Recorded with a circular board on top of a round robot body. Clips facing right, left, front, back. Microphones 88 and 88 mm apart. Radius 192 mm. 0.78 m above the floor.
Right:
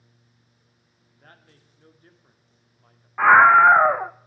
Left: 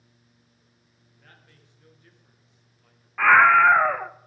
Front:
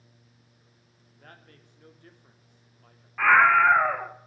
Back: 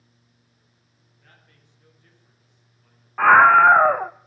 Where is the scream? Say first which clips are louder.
Right 3 dB, back 6 dB; 145° right, 0.7 m.